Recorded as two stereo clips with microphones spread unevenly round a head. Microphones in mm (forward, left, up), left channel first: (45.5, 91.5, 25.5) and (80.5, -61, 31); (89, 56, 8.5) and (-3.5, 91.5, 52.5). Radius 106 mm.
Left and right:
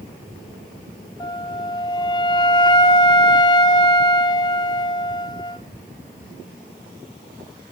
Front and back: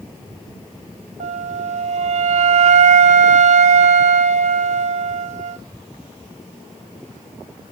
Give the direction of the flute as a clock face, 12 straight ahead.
7 o'clock.